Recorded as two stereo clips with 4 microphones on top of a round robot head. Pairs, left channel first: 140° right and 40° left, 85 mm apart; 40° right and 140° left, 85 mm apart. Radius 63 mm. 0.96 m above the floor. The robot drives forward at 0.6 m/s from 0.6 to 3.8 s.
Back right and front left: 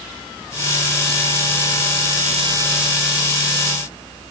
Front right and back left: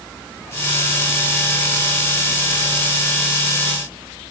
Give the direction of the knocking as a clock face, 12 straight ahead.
No knocking in this recording.